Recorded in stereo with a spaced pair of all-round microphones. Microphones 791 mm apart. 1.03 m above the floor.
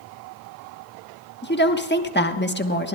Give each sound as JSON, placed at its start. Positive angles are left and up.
{"t": 1.4, "sound": "a woman speaking", "side_deg": 15, "distance_m": 1.2}